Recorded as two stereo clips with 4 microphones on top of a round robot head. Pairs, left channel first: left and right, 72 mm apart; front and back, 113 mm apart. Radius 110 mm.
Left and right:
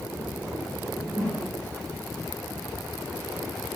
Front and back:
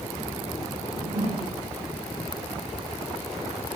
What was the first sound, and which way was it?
A whoosh, 160° right.